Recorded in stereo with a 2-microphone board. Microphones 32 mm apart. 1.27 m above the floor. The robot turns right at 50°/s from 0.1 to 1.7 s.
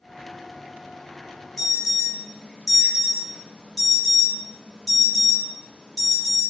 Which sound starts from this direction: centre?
An alarm, at 1.6 s.